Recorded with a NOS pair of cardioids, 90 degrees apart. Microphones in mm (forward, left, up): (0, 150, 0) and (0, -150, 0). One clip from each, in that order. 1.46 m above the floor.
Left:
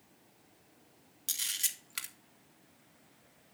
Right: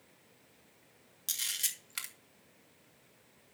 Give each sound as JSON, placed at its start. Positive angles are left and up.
{"t": 1.3, "sound": "a camera shutter", "azimuth_deg": -5, "distance_m": 2.0}